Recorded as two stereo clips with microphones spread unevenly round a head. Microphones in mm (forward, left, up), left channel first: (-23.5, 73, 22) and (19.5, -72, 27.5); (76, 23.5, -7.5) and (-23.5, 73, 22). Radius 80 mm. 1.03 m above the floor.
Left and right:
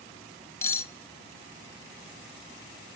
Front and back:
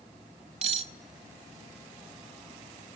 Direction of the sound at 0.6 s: Straight behind.